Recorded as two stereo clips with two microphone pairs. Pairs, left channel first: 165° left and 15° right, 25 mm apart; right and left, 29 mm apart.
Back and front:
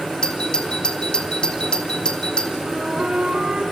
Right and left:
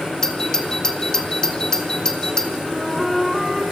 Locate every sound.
0.2 s a doorbell: 150° right, 2.5 m
2.6 s a flute: 5° left, 5.5 m